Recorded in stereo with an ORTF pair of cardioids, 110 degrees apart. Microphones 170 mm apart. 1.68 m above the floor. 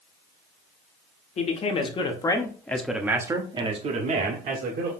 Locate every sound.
1.4 s a man speaking: 40° left, 1.3 m; by 4.9 s 60° right, 1.3 m